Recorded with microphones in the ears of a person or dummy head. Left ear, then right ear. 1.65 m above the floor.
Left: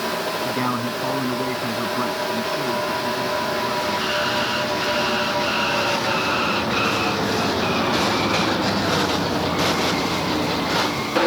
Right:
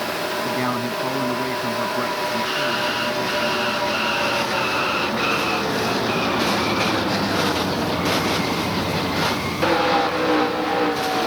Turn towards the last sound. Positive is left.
turn(degrees=-5)  # may be behind; listen again after turning